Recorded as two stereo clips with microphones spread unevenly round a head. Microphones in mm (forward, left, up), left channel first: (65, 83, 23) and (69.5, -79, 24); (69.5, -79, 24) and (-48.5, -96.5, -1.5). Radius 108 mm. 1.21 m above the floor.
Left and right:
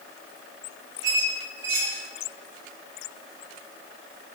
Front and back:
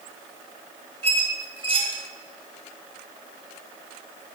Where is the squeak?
130° right, 1.6 m.